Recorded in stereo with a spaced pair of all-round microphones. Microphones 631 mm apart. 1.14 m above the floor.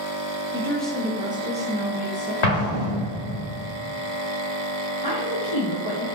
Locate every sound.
0.5 s a woman speaking: 5° left (ahead or behind), 0.7 m; by 2.3 s 20° right (ahead or behind), 0.7 m
2.4 s an explosion: 70° left (ahead or behind), 0.8 m
5.0 s a woman speaking: 35° left (ahead or behind), 1.3 m